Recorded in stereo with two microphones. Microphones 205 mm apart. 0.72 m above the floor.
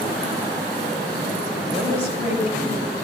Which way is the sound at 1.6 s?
60° right (ahead or behind).